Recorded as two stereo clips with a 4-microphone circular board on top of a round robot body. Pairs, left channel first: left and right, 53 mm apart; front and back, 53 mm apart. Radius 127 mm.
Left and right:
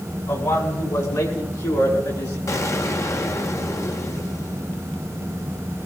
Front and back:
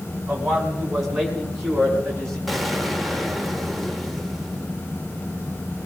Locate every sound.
0.3 s a man speaking: 100° left, 4.5 m; by 2.4 s 80° left, 7 m
2.5 s an explosion: 90° left, 1.8 m